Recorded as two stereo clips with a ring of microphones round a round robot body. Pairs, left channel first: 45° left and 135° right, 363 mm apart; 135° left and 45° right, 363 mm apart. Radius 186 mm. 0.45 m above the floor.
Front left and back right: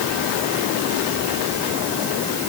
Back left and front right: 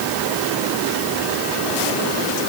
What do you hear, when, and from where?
Only background noise.